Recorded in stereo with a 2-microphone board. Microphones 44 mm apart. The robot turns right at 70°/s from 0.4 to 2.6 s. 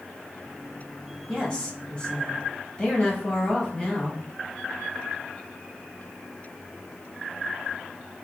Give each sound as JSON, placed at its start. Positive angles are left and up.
{"t": 1.3, "sound": "a woman speaking", "side_deg": 15, "distance_m": 1.0}